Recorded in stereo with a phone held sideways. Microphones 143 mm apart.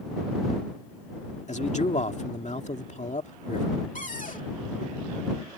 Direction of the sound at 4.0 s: 65° left (ahead or behind).